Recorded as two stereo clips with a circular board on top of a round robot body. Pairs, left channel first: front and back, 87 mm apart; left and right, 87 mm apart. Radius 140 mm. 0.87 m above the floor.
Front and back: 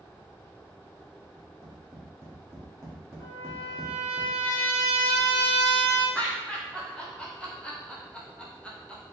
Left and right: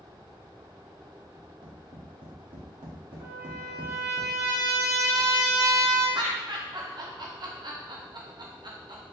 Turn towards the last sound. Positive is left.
turn(degrees=-75)